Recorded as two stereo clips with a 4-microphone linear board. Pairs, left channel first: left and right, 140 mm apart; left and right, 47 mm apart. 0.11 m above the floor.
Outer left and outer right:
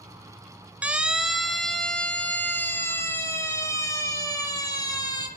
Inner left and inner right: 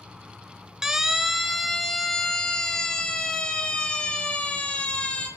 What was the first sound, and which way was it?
A siren, 10° right (ahead or behind).